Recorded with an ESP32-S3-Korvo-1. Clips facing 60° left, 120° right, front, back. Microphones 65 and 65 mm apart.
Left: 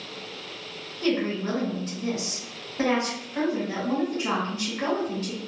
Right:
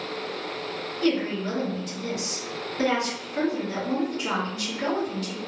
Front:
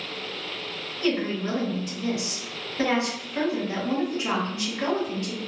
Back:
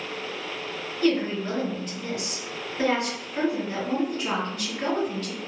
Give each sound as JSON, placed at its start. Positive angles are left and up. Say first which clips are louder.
{"t": 1.0, "sound": "a woman speaking", "louder": "even, back 2 dB", "azimuth_deg": 50, "distance_m": 1.5}